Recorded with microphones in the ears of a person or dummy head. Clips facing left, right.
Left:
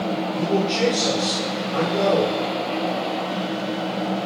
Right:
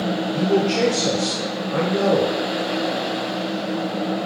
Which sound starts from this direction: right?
A man speaking, at 0.3 s.